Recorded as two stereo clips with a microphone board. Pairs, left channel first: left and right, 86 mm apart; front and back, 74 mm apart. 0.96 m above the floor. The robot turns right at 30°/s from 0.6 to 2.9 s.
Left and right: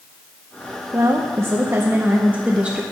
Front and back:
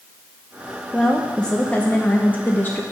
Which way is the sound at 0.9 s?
80° right.